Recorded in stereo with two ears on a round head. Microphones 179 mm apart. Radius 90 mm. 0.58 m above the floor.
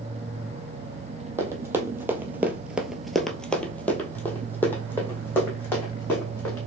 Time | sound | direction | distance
1.4 | running footsteps | 10° right (ahead or behind) | 1.0 m